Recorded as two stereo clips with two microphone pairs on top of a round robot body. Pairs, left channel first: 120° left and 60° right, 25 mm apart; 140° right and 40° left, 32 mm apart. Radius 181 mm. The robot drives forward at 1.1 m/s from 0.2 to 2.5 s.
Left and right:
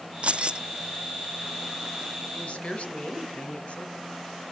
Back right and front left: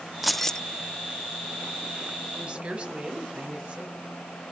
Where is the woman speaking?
90° left, 4 m; by 4.0 s 95° left, 4 m.